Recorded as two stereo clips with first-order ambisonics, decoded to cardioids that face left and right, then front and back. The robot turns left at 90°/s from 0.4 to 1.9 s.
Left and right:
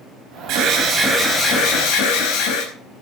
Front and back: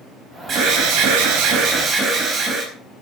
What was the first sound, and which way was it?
An alarm, 120° right.